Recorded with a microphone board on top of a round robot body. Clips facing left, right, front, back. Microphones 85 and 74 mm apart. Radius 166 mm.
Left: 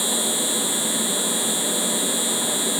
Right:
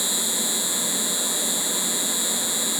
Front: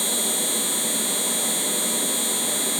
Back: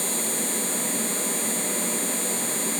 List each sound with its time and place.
0.0 s an insect: 20° right